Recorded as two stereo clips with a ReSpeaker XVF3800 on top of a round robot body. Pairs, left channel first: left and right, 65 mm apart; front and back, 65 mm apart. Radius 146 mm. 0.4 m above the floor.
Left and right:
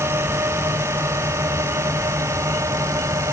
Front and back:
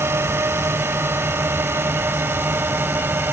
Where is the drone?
135° right; by 3.3 s 125° right.